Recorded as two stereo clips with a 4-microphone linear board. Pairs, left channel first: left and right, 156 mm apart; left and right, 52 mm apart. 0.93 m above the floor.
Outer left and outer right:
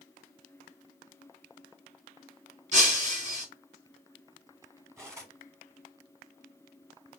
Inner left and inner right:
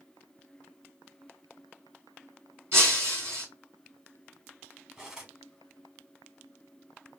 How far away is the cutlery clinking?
About 1.3 m.